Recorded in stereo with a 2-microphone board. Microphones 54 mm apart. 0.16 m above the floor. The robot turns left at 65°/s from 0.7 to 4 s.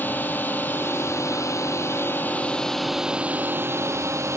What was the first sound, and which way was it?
A drone, 140° left.